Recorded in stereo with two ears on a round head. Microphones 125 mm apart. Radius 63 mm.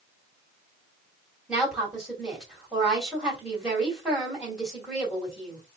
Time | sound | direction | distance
1.5 | a woman speaking | 5° right (ahead or behind) | 2.5 m